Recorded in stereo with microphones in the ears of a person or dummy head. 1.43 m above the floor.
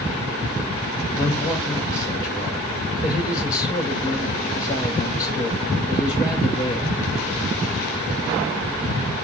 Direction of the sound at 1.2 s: 25° left (ahead or behind).